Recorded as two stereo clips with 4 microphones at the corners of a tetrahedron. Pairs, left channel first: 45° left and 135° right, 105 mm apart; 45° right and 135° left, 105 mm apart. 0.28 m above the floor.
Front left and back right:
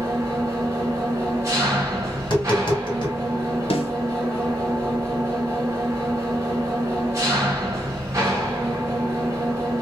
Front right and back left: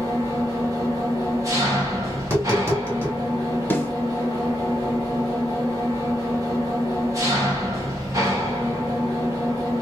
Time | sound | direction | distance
0.0 | an engine running | 175° left | 1.3 m
2.2 | tapping | 80° left | 2 m
3.7 | a snare drum | 25° left | 0.7 m